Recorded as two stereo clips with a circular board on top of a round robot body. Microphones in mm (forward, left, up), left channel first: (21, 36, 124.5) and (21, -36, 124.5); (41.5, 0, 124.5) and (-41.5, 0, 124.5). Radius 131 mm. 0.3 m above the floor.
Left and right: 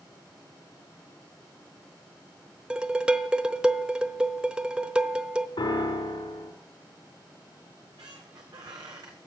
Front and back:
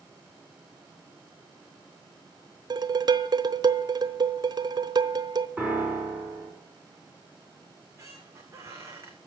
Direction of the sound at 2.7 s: 160° right.